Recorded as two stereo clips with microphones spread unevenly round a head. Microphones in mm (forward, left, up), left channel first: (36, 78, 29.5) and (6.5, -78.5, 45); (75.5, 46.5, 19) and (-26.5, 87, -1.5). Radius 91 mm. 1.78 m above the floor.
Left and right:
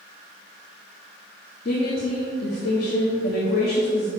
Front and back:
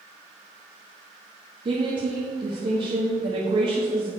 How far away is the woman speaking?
About 1.6 m.